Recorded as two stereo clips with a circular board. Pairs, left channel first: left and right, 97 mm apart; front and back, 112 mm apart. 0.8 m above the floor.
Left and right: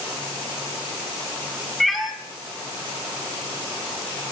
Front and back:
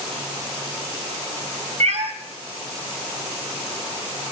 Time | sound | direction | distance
1.8 | a cat meowing | straight behind | 2.5 m